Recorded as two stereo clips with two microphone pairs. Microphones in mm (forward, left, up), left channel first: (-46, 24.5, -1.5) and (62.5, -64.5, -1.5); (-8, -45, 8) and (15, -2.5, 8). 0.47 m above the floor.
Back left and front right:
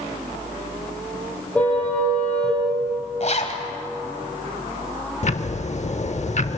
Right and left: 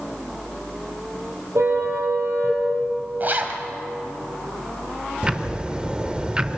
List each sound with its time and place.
1.6 s a car horn: 60° left, 6 m
3.2 s a zipper: 110° left, 2 m
5.2 s ticking: 130° left, 0.8 m